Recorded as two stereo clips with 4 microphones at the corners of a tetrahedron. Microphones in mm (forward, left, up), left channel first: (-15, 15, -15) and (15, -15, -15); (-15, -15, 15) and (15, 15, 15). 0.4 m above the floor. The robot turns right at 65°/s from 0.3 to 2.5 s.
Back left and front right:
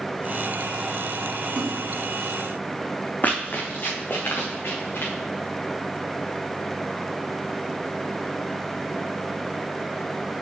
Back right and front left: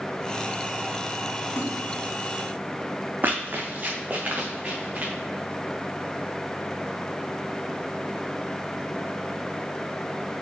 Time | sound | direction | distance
1.6 | a splash | 105° right | 1.9 m
3.2 | running footsteps | 90° left | 1.6 m